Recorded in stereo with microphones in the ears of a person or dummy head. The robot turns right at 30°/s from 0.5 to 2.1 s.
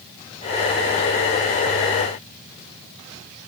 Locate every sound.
Only background noise.